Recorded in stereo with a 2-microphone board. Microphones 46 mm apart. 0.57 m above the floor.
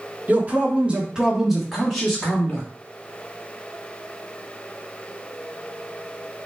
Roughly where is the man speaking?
Right.